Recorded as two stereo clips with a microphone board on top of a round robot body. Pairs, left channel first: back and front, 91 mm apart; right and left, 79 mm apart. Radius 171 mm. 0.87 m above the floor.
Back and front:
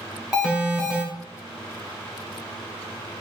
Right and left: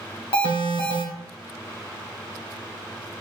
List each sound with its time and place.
0.3 s an alarm: 80° right, 3 m